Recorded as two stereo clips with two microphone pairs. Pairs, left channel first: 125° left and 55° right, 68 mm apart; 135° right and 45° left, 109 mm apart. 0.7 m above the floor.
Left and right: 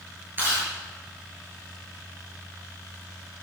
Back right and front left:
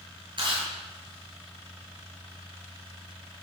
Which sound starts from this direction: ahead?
Chewing, at 0.4 s.